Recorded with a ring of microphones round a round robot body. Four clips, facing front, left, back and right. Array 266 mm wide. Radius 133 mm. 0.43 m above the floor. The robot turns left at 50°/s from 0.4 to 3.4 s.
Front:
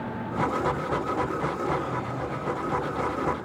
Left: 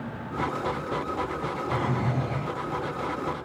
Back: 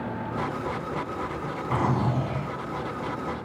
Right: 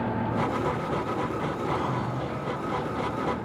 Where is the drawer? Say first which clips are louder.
Left 1 dB, back 3 dB; 170° left, 1.5 m; by 2.5 s 130° left, 1.5 m.